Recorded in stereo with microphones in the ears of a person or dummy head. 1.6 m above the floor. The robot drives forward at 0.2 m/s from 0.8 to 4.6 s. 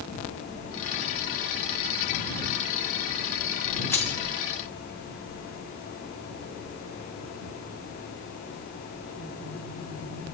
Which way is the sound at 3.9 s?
10° left (ahead or behind).